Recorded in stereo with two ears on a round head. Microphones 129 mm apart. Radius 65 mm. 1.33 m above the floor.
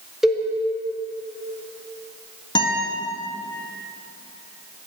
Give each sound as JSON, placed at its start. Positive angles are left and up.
{"t": 0.2, "sound": "a cowbell", "side_deg": -5, "distance_m": 1.4}
{"t": 2.5, "sound": "a guitar", "side_deg": 30, "distance_m": 1.9}